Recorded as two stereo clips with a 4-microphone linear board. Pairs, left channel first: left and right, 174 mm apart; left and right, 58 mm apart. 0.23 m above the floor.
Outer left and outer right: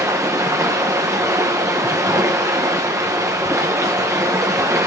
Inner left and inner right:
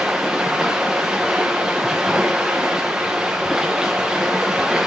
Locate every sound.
0.0 s running water: 15° right (ahead or behind), 1.8 m